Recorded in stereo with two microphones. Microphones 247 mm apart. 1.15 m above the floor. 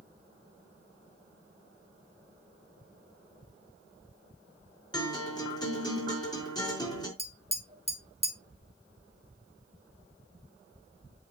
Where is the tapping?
25° right (ahead or behind), 2.0 m.